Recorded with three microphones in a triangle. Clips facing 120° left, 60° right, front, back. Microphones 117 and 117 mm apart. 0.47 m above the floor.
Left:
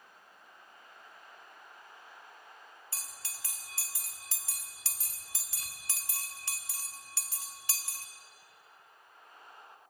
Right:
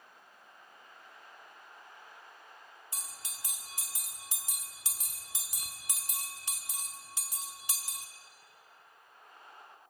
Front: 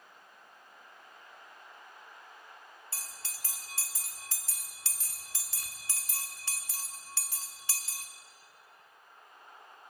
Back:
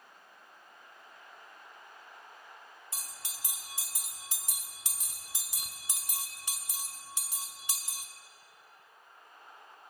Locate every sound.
2.9 s a bell: 120° right, 1.3 m